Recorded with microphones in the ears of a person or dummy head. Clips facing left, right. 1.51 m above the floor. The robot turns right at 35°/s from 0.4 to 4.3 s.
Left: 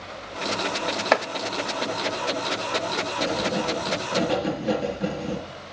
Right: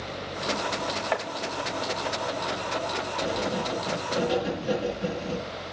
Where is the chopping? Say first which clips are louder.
Left 8 dB; 80° left, 1.0 m.